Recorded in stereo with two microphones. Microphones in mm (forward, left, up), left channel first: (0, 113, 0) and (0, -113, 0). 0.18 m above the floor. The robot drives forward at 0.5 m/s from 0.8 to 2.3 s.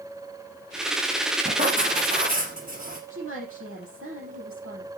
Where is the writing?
35° right (ahead or behind), 4 m; by 3.0 s 40° right (ahead or behind), 3.5 m.